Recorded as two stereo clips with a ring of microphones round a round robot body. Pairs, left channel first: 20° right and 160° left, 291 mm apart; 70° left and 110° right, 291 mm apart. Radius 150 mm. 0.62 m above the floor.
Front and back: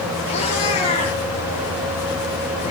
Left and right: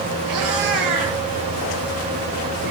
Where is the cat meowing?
95° right, 7.5 m.